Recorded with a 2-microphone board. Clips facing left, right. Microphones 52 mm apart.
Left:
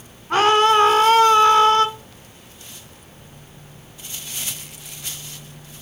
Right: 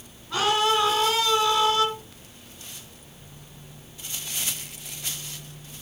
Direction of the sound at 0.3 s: 55° left (ahead or behind).